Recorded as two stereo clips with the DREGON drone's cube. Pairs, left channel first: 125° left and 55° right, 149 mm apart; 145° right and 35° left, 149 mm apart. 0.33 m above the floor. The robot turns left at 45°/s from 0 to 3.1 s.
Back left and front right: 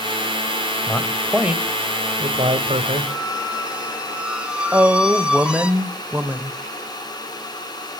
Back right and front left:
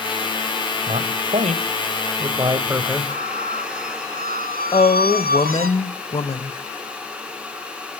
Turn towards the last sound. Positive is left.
turn(degrees=-130)